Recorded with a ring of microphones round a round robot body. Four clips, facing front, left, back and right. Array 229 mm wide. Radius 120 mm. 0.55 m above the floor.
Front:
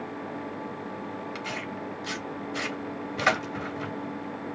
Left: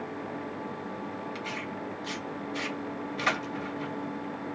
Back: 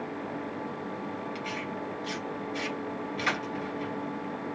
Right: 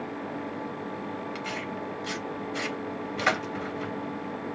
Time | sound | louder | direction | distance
1.4 | tearing paper | right 2 dB, even | 35° right | 2.5 m